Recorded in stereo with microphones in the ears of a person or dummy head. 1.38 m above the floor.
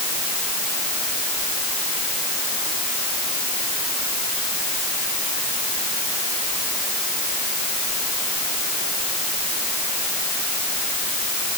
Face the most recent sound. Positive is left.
No sound to turn to.